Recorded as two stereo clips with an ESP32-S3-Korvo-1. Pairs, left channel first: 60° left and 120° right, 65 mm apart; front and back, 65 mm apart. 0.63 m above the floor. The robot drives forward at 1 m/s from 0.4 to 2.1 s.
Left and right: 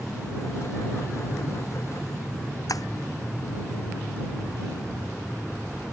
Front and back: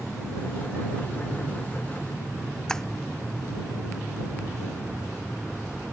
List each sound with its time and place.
2.7 s breaking glass: 80° left